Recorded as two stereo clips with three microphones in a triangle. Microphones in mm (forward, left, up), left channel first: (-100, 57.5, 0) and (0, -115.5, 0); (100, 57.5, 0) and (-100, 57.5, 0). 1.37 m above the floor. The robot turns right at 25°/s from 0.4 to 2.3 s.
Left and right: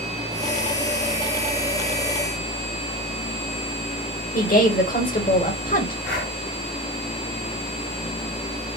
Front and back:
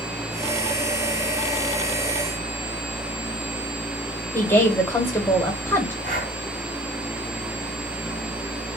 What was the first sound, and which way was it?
A woman speaking, 80° left.